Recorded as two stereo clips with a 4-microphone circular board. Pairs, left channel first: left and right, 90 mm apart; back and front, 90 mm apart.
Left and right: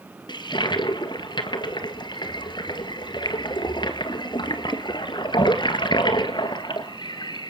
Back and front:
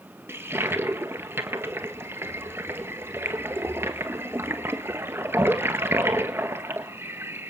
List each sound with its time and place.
0.3 s a toilet flushing: 60° left, 1.8 m